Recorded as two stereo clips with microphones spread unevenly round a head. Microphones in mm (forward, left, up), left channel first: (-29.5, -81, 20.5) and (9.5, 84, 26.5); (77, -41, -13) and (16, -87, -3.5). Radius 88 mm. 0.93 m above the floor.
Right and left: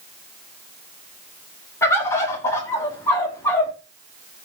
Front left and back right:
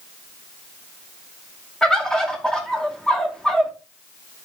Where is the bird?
35° right, 0.9 m.